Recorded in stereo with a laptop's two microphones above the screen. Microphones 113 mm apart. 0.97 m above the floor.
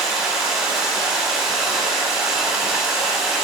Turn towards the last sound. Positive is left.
turn(degrees=-10)  # may be behind; listen again after turning